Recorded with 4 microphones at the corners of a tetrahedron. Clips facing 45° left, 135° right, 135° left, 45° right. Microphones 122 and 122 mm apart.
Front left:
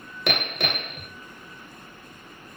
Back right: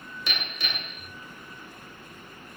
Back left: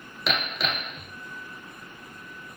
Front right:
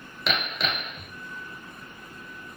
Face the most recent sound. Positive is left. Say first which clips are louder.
# front left 10 dB, even
turn(degrees=45)